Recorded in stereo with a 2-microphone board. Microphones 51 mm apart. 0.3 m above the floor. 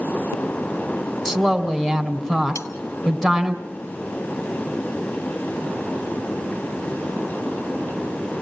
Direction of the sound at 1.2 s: 5° left (ahead or behind).